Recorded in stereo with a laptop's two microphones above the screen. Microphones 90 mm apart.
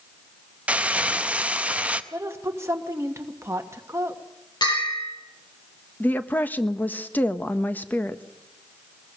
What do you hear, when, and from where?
0.7 s crumpling: 15° right (ahead or behind), 0.6 m
2.1 s a woman speaking: 30° right (ahead or behind), 1.4 m
4.6 s a bell: 55° left (ahead or behind), 8 m
6.0 s a woman speaking: 20° left (ahead or behind), 1.2 m